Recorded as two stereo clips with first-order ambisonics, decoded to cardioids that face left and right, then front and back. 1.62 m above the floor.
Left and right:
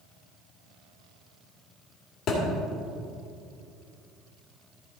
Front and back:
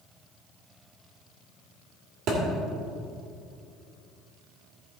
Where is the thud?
135° left, 2 m.